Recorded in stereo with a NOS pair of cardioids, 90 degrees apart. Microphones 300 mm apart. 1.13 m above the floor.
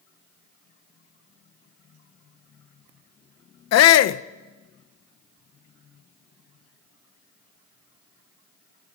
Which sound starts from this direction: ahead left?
A shout, at 3.7 s.